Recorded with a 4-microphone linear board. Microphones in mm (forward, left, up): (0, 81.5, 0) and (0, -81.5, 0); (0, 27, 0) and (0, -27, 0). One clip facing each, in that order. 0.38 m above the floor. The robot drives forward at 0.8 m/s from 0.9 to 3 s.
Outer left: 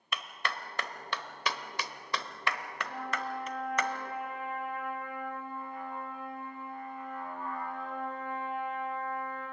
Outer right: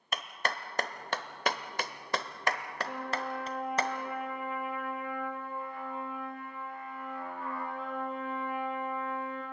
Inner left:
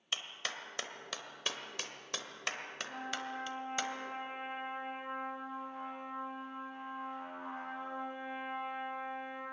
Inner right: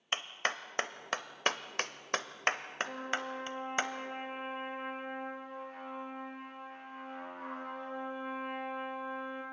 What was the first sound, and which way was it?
A clap, 40° right (ahead or behind).